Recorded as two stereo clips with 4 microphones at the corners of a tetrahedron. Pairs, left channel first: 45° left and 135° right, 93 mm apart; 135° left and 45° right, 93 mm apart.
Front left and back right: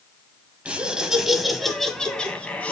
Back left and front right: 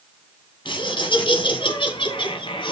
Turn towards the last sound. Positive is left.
turn(degrees=120)